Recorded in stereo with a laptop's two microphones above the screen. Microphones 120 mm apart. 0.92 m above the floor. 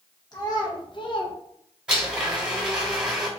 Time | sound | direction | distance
0.3 | a child speaking | 35° left (ahead or behind) | 0.9 m
1.9 | a blender | 10° right (ahead or behind) | 1.9 m